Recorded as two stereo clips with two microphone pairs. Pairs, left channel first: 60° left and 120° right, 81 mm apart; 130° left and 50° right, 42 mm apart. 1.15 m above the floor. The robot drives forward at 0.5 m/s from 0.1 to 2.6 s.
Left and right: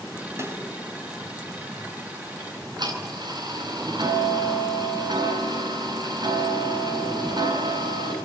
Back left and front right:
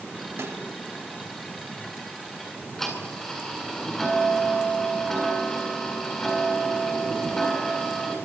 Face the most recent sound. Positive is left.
turn(degrees=-150)